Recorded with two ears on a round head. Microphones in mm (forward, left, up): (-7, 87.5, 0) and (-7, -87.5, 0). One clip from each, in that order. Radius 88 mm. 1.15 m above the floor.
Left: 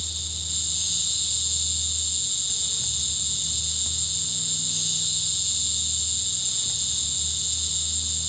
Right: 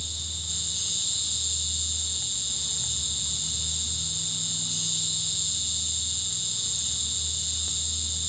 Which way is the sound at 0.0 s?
5° left (ahead or behind).